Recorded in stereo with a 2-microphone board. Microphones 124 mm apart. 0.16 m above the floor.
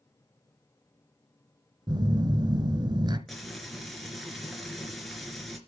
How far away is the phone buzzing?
About 1.4 m.